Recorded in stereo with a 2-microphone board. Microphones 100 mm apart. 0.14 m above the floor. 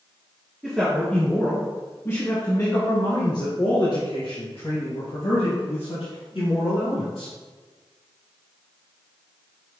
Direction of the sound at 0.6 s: 5° left (ahead or behind).